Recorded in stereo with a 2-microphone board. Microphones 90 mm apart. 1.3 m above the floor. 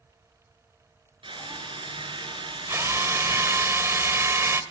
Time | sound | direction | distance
1.2 | a drill | 70° right (ahead or behind) | 9.5 m
2.7 | a drill | 30° right (ahead or behind) | 2.5 m